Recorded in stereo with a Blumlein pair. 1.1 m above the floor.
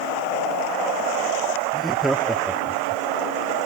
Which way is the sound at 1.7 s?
5° right.